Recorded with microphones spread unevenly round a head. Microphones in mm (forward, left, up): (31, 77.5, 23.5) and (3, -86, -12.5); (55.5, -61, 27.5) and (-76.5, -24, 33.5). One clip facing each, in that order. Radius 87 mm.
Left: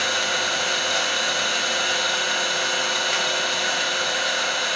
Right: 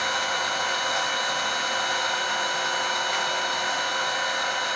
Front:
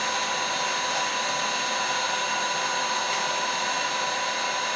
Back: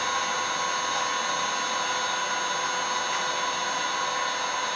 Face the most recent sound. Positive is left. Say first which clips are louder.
# left 2 dB, even
turn(degrees=55)